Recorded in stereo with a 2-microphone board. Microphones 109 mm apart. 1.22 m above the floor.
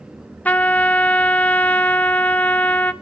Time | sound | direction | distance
0.5 | a trumpet | 15° left (ahead or behind) | 0.7 m